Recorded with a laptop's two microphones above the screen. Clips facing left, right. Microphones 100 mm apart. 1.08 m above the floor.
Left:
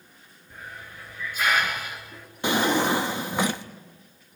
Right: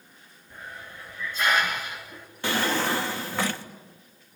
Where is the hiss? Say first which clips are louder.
Even; 10° left (ahead or behind), 3 m.